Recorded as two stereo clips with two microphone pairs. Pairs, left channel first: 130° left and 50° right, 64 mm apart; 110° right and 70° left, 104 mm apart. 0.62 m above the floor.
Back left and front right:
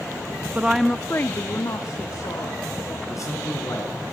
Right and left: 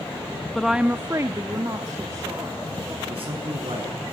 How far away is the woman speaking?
About 0.6 m.